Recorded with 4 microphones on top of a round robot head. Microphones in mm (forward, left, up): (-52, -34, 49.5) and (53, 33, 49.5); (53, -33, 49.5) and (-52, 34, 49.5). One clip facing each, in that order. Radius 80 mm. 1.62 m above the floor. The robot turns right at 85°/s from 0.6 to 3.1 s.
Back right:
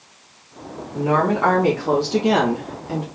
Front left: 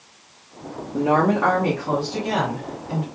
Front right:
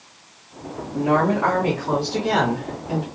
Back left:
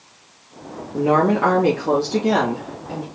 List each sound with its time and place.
0.9 s a woman speaking: 85° left, 1.5 m; by 3.0 s 95° right, 1.5 m